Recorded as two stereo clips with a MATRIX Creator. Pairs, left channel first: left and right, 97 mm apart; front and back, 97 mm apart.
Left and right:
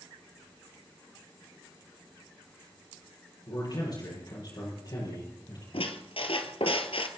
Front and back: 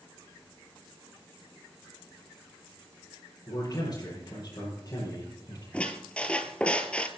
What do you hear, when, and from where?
3.5 s a man speaking: 55° left, 7.5 m
5.7 s a squeak: 75° left, 1.4 m